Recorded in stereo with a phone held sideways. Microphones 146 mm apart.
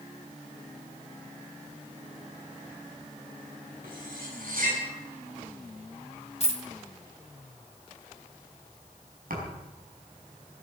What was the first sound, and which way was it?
Cutlery clinking, 80° right.